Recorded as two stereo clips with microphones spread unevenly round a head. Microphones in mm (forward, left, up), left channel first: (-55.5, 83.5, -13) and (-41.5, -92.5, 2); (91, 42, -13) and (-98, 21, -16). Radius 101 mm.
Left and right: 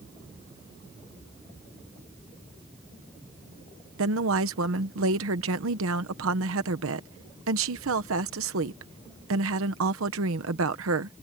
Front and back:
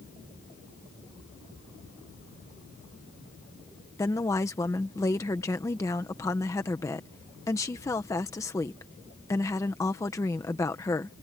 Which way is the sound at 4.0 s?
70° right.